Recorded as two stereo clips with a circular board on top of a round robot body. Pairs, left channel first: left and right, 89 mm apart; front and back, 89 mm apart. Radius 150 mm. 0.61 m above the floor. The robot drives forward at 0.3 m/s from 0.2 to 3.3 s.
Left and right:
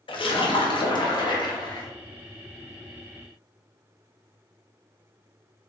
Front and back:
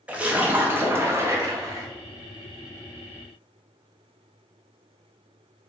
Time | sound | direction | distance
0.1 | a splash | 105° left | 0.9 m